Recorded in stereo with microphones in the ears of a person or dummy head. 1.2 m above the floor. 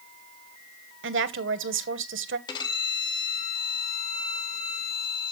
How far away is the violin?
About 2.0 m.